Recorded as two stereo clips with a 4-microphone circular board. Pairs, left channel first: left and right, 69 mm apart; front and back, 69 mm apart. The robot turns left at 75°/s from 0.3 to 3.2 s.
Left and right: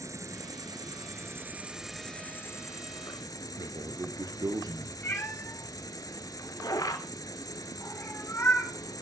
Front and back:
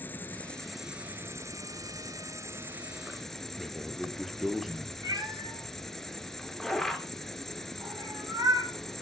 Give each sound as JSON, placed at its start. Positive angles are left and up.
{"t": 0.0, "sound": "an insect", "azimuth_deg": -60, "distance_m": 1.3}
{"t": 3.6, "sound": "a man speaking", "azimuth_deg": -95, "distance_m": 2.5}
{"t": 5.0, "sound": "a cat meowing", "azimuth_deg": 150, "distance_m": 4.5}